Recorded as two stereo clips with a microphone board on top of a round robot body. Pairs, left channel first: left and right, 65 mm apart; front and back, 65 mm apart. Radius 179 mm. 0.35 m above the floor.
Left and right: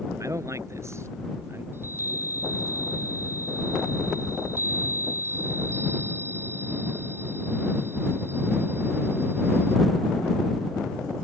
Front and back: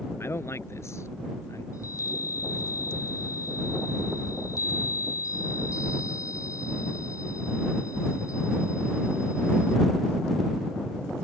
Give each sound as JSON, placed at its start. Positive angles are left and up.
{"t": 0.2, "sound": "a man speaking", "azimuth_deg": -50}
{"t": 1.7, "sound": "a chime", "azimuth_deg": -35}